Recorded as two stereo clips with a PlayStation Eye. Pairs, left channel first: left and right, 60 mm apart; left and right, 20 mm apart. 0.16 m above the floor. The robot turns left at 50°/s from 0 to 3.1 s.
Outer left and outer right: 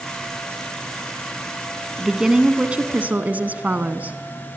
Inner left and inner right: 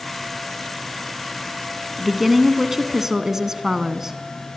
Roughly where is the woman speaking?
Ahead.